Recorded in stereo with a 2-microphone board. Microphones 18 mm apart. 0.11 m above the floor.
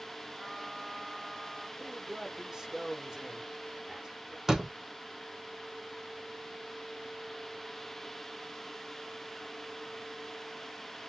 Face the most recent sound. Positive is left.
turn(degrees=-20)  # may be behind; listen again after turning